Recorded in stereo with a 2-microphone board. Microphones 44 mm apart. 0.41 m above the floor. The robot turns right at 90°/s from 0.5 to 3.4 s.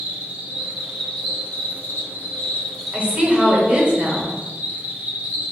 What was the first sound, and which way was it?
An insect, 35° right.